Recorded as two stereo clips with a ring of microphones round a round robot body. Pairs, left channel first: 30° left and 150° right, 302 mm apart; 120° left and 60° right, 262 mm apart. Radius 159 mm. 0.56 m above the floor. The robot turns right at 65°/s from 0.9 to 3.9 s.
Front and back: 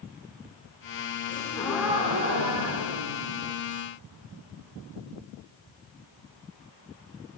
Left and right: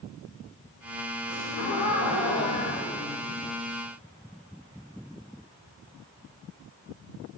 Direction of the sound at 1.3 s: 90° left.